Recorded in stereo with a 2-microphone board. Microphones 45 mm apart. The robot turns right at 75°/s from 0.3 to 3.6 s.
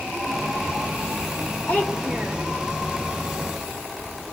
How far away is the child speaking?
About 1.3 m.